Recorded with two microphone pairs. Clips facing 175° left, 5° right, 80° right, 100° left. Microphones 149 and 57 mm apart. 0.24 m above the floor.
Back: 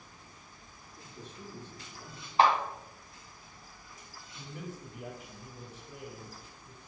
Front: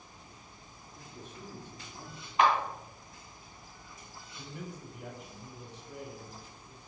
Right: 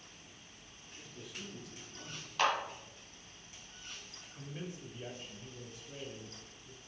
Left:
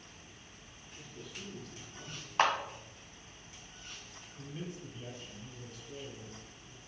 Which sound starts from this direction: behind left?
A clap, at 2.4 s.